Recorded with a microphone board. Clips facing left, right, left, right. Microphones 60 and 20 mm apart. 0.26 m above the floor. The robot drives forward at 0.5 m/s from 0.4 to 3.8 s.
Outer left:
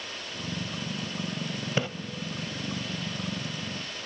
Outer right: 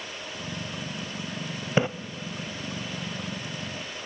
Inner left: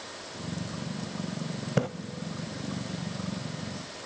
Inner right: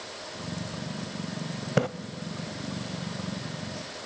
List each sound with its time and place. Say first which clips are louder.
1.8 s a splash: outer right 6 dB, inner right 3 dB; 20° right (ahead or behind), 0.6 m